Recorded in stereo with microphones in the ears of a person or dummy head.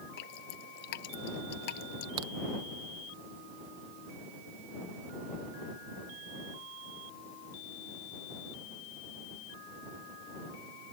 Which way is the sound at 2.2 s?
25° right (ahead or behind).